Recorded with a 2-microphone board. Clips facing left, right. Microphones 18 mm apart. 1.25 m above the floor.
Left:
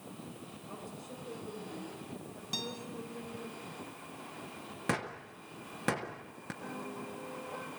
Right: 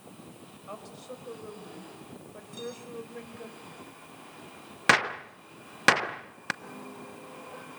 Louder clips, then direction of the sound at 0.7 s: Right 5 dB; 85° right.